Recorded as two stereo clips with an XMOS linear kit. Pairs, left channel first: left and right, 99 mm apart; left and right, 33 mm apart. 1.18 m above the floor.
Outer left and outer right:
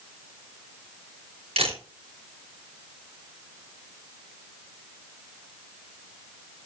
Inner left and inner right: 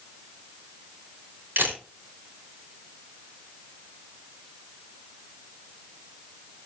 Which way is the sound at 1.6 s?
80° right.